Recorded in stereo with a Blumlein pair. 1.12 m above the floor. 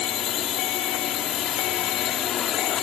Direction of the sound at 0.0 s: 30° left.